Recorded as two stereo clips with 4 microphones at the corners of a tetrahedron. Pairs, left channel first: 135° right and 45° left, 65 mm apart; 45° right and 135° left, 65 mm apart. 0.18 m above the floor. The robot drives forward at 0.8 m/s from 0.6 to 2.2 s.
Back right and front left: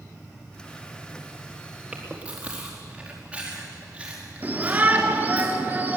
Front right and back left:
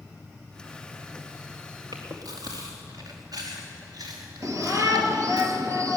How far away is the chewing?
About 4.5 m.